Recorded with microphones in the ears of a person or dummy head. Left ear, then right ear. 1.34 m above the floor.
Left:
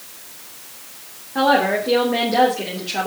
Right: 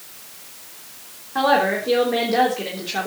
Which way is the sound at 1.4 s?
20° right (ahead or behind).